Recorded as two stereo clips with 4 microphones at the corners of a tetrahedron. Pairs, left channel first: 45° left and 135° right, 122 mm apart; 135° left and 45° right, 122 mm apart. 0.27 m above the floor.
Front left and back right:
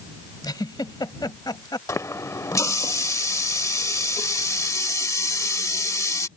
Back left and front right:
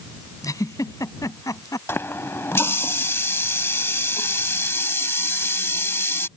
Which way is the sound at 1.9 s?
85° left.